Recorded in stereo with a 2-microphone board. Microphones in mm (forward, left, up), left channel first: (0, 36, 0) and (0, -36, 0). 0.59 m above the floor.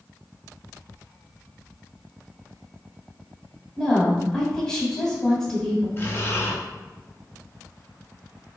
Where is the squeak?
No squeak in this recording.